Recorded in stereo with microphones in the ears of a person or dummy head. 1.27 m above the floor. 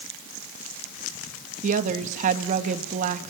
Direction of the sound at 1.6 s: 45° right (ahead or behind).